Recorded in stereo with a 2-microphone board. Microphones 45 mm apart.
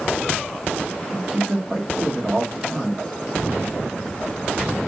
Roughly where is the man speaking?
Centre.